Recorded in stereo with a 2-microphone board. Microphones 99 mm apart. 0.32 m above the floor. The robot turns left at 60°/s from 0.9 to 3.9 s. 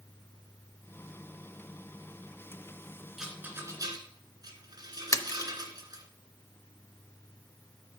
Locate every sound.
3.2 s a rattle: 5° right (ahead or behind), 1.7 m; by 6.0 s 45° right (ahead or behind), 1.7 m
5.1 s a splash: 35° left (ahead or behind), 0.6 m